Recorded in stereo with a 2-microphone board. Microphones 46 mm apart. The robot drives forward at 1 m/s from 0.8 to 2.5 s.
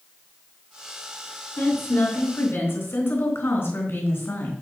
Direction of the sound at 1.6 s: 45° left (ahead or behind).